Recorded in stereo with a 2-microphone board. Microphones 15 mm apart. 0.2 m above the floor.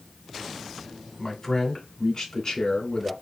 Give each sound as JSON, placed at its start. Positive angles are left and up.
{"t": 1.2, "sound": "a man speaking", "side_deg": 30, "distance_m": 1.1}